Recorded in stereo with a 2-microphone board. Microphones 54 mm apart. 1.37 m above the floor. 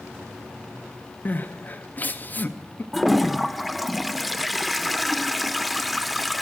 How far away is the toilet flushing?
About 0.5 m.